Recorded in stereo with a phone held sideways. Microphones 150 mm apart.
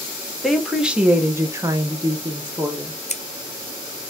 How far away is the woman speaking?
About 1.1 m.